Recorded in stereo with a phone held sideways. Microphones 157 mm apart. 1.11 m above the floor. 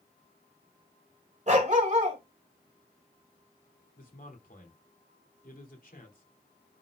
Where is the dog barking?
50° right (ahead or behind), 1.9 m.